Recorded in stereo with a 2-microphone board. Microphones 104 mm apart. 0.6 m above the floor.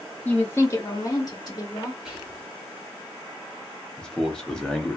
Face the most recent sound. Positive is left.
turn(degrees=5)  # may be behind; listen again after turning